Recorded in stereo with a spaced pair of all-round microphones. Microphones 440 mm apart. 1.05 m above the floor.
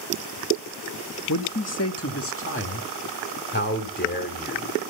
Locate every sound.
1.3 s a man speaking: 40° left (ahead or behind), 1.3 m; by 4.8 s 20° left (ahead or behind), 3.5 m